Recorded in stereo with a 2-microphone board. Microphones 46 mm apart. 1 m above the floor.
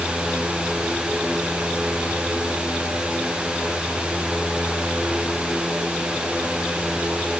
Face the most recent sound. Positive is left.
No sound to turn to.